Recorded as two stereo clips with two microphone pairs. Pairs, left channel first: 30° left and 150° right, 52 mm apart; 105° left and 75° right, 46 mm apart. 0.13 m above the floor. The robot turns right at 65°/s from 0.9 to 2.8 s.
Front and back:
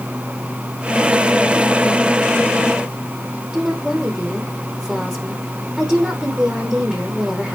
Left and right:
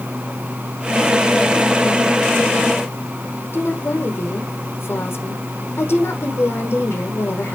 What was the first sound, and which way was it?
A woman speaking, 135° left.